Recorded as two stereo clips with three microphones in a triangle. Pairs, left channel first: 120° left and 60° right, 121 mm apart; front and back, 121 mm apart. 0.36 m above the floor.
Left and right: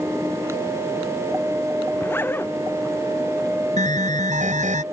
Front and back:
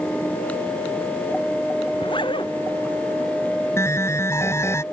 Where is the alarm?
70° right.